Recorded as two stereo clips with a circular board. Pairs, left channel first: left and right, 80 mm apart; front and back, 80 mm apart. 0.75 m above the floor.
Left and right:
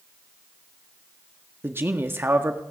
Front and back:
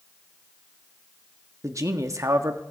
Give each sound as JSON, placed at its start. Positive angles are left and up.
{"t": 1.6, "sound": "a man speaking", "azimuth_deg": -145, "distance_m": 1.5}